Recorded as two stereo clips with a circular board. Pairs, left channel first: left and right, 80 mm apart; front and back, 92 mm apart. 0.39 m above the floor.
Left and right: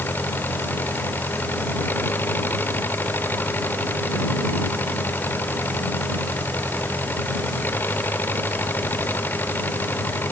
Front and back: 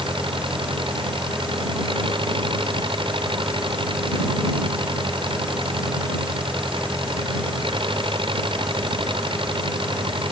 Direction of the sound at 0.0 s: 155° left.